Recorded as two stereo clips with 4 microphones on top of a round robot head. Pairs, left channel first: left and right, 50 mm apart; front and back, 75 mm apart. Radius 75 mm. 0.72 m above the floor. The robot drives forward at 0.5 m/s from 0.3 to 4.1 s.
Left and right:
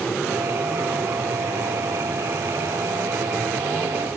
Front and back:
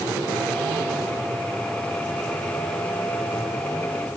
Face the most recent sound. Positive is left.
No sound to turn to.